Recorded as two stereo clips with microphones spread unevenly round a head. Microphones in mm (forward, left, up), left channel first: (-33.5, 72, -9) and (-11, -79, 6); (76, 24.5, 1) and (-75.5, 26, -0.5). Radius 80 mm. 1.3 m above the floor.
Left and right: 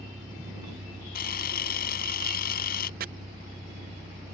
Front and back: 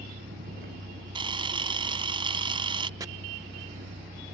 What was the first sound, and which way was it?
A vehicle, 145° right.